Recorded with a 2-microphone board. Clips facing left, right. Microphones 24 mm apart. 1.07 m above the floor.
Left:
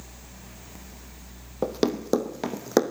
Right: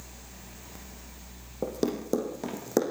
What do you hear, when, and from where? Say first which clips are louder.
1.6 s running footsteps: left 4 dB; 50° left (ahead or behind), 2.5 m; by 2.8 s 45° left (ahead or behind), 3.5 m